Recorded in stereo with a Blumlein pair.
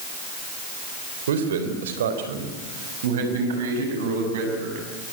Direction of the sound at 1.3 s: 60° right.